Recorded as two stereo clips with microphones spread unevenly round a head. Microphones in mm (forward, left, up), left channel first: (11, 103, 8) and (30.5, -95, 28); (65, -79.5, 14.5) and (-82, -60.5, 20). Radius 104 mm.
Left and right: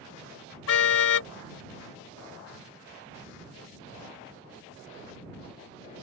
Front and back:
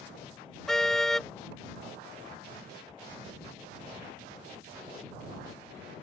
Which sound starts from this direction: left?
A car horn, at 0.7 s.